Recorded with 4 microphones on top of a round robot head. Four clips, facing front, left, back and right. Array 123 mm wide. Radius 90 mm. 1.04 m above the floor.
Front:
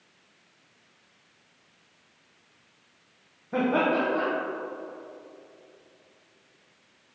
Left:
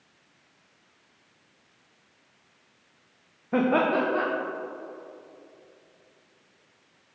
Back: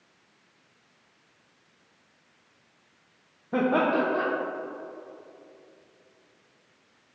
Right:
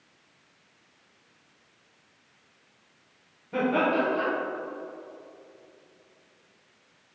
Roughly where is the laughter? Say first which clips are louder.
Left 2 dB, back 1 dB; left.